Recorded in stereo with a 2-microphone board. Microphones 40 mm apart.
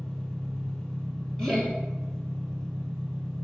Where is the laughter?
10° left (ahead or behind), 1.1 m.